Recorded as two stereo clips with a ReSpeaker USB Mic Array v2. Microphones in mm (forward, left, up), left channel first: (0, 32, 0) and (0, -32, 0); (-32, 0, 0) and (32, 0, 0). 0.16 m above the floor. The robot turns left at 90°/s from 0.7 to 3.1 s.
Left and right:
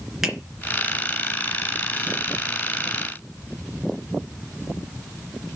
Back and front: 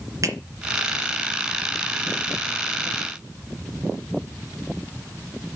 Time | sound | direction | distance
0.2 | a finger snap | 5° right | 2.5 m